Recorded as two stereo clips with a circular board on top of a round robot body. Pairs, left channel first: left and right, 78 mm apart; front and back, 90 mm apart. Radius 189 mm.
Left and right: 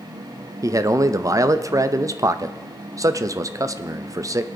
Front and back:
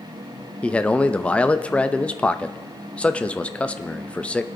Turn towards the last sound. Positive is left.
turn(degrees=-70)